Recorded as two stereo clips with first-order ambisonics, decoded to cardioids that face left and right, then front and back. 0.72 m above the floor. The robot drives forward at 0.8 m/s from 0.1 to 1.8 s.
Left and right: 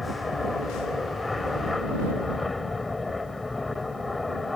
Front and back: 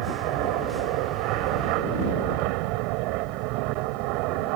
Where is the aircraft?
170° left.